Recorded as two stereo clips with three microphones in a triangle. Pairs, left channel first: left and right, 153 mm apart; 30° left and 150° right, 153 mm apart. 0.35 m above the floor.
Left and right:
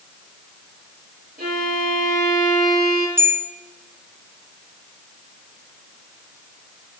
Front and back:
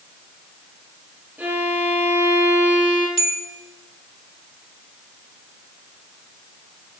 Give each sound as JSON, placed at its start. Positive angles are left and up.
{"t": 1.4, "sound": "a violin", "azimuth_deg": -70, "distance_m": 4.0}
{"t": 3.2, "sound": "a bell", "azimuth_deg": -20, "distance_m": 1.4}